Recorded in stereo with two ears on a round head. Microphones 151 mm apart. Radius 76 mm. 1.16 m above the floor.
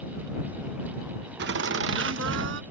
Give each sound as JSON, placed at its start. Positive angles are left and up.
{"t": 1.4, "sound": "laughter", "side_deg": -70}